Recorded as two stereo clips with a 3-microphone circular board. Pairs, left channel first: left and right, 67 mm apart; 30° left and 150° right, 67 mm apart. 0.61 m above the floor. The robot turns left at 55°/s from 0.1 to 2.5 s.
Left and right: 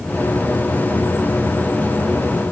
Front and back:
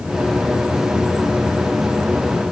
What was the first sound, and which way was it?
Only background noise.